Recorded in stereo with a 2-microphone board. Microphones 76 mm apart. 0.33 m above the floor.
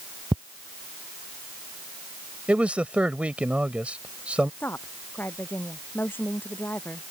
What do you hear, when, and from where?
0.3 s ticking: 75° right (ahead or behind)
2.5 s a man speaking: 15° right (ahead or behind)
4.6 s a woman speaking: 25° left (ahead or behind)